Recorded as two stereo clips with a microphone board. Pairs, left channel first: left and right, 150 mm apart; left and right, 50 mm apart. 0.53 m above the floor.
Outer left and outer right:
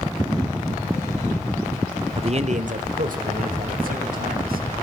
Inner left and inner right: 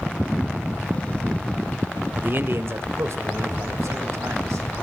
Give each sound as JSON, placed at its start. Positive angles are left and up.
{"t": 2.2, "sound": "a man speaking", "side_deg": -35, "distance_m": 0.8}